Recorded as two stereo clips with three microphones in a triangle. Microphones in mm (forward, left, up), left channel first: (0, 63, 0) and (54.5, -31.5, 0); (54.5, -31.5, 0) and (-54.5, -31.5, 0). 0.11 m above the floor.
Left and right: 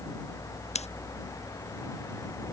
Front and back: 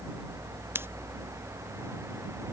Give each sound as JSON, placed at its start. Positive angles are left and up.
{"t": 0.8, "sound": "scissors", "azimuth_deg": 110}